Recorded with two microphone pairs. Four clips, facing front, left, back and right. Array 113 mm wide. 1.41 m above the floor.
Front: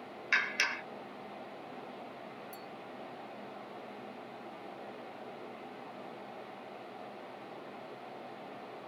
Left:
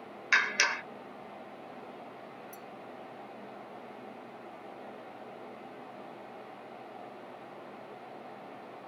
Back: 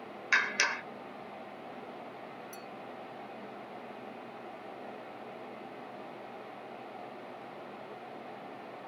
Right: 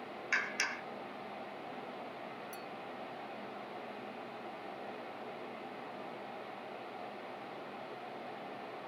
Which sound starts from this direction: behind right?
A clink, at 2.5 s.